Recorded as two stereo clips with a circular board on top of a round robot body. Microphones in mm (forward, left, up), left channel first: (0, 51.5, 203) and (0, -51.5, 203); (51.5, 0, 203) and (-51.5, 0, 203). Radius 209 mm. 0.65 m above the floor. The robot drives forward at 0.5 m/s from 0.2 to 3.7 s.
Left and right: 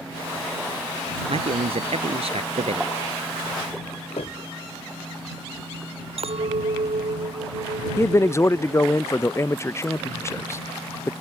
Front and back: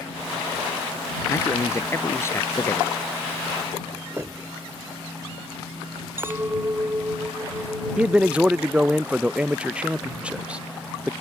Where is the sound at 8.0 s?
115° left.